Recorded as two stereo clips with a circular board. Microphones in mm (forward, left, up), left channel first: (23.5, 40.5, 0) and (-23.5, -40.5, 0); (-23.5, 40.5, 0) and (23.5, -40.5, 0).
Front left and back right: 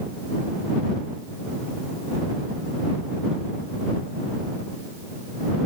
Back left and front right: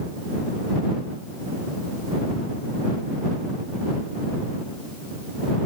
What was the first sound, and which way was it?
Only background noise.